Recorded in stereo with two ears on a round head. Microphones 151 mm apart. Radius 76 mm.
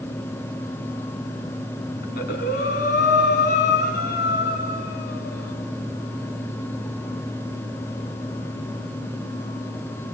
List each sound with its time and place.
2.0 s breathing: 65° left (ahead or behind), 5.5 m